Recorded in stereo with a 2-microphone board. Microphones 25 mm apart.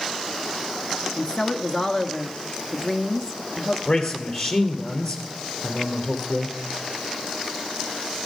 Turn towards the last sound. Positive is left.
turn(degrees=40)  # may be behind; listen again after turning